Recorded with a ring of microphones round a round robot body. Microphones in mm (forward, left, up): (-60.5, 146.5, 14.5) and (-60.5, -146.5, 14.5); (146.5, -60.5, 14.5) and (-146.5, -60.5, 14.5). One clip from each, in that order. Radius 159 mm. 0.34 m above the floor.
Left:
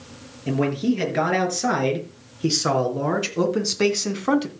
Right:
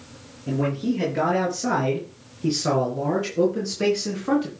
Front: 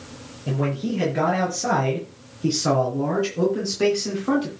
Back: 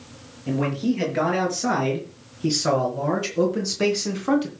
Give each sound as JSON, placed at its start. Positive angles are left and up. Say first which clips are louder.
{"t": 0.5, "sound": "a man speaking", "louder": "left 3 dB, back 2 dB", "azimuth_deg": 105, "distance_m": 5.0}